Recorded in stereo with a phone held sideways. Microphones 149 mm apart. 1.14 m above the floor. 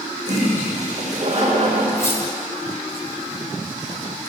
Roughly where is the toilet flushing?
Right.